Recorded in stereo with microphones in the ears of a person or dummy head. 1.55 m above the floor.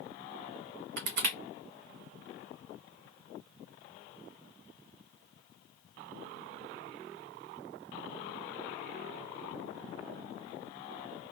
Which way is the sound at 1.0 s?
60° right (ahead or behind).